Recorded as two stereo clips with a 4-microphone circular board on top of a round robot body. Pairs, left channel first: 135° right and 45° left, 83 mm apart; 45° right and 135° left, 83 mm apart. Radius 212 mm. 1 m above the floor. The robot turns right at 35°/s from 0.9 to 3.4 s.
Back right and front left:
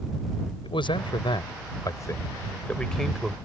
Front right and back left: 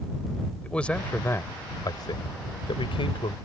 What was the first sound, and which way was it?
A man speaking, 125° right.